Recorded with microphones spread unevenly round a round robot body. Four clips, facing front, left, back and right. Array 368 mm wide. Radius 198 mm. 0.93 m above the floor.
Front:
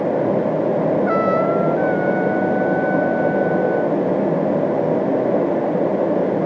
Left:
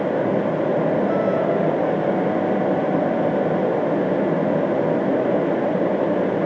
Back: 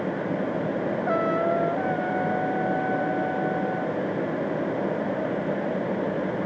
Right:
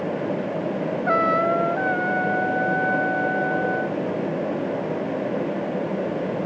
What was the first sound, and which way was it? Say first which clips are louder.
A trumpet: left 1 dB, front 6 dB; 90° right.